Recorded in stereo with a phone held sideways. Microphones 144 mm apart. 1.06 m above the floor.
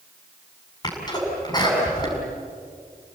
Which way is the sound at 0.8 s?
25° left (ahead or behind).